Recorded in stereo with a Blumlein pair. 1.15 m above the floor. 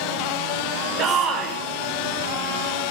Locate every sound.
1.0 s a shout: 25° right, 2.5 m